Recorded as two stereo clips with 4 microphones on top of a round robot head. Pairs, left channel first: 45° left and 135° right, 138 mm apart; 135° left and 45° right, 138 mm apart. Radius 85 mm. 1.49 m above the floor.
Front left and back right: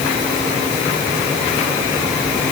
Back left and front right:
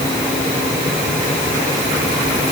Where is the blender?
I don't hear a blender.